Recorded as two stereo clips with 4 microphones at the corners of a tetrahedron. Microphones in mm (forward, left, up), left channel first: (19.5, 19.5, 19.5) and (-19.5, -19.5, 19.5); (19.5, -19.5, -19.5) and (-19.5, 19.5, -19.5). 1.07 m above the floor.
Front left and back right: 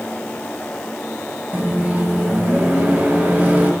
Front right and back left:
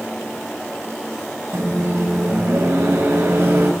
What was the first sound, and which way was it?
A microwave, 170° left.